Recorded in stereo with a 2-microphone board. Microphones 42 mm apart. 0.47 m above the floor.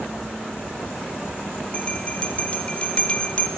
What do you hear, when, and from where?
1.7 s a bell: 30° left (ahead or behind), 0.6 m